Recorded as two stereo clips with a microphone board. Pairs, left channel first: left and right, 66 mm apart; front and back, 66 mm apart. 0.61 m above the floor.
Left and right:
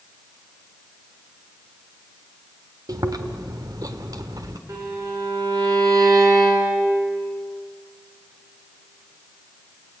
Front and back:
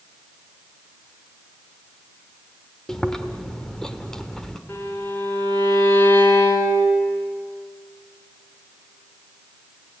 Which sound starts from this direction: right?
Chewing, at 2.9 s.